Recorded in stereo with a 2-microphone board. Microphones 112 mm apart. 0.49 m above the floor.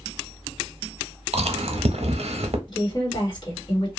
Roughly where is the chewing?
Right.